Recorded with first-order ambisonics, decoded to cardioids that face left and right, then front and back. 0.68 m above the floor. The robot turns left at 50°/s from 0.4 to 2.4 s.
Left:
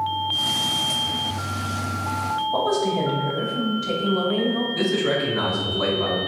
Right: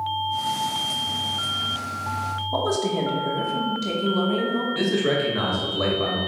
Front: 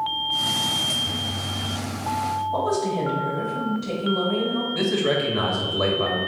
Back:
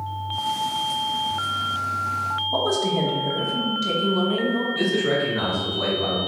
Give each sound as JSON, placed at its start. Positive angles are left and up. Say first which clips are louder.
{"t": 2.5, "sound": "a woman speaking", "louder": "even, back 3 dB", "azimuth_deg": -125, "distance_m": 1.3}
{"t": 4.8, "sound": "a man speaking", "louder": "even, front 1 dB", "azimuth_deg": -35, "distance_m": 1.2}